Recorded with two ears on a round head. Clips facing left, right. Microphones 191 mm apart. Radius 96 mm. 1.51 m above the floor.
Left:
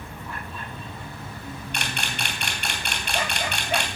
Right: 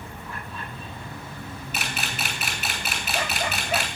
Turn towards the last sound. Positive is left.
turn(degrees=-5)  # may be behind; listen again after turning